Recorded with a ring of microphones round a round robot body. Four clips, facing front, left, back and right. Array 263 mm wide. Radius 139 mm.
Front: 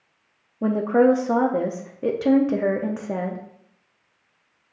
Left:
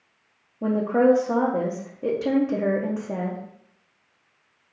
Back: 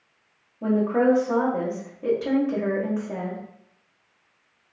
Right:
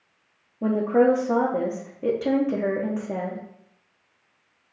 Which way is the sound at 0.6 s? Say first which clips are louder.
Even, front 3 dB; 5° right.